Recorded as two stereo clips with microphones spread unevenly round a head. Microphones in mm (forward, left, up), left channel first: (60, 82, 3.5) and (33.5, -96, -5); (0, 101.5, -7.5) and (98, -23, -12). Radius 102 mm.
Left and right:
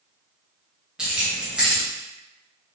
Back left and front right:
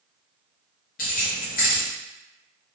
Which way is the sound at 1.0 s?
175° left.